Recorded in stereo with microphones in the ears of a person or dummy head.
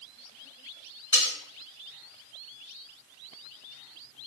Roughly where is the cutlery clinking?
Left.